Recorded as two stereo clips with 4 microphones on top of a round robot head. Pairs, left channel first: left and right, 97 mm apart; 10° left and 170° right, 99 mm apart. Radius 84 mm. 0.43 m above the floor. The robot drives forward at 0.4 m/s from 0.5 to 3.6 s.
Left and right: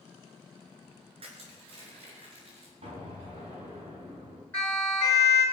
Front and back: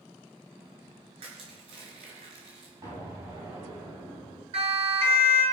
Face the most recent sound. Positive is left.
turn(degrees=165)